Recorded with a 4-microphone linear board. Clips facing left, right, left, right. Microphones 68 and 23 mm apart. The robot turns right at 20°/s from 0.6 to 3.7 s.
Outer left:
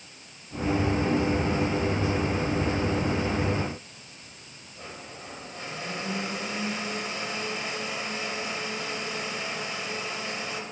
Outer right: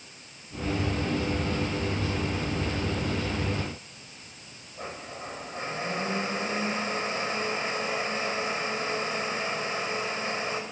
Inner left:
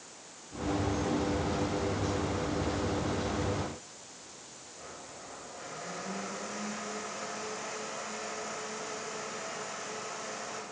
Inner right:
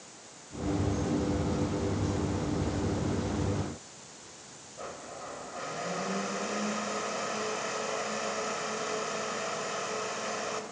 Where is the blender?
35° right (ahead or behind), 3.5 m.